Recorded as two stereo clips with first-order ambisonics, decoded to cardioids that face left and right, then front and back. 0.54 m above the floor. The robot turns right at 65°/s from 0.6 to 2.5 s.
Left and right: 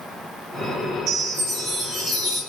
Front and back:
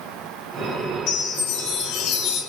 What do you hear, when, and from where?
1.1 s a chime: 40° right, 3 m; by 2.4 s 45° left, 3 m